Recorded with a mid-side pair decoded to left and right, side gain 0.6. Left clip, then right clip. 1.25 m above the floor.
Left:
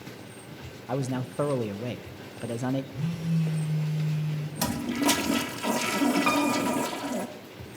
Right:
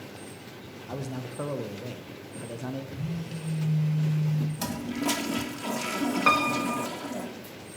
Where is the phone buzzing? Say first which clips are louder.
Left 4 dB; 25° left, 6 m.